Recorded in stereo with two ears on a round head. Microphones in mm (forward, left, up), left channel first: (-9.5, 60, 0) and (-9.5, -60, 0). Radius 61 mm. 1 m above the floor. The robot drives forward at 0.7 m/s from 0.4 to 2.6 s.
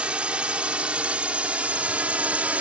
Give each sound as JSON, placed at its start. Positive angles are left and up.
{"t": 0.0, "sound": "a drone", "side_deg": -10}